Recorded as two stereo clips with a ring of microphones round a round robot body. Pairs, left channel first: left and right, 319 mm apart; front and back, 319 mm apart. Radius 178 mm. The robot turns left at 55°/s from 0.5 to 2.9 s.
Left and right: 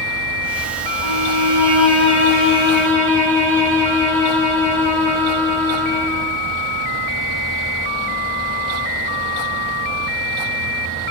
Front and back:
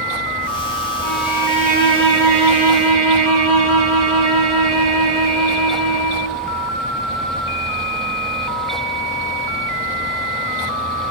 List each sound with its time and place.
1.0 s a violin: 80° right, 3.5 m; by 6.4 s 175° left, 3.5 m